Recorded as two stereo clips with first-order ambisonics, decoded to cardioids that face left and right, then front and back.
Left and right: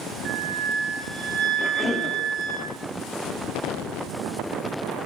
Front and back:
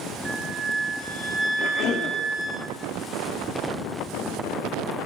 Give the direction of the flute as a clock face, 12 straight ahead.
4 o'clock.